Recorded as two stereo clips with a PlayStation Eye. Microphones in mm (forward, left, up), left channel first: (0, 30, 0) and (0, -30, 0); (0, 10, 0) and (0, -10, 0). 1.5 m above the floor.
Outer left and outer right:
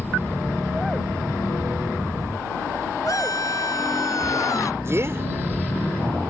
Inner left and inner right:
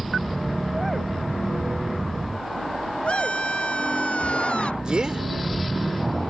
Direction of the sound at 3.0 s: 65° left (ahead or behind).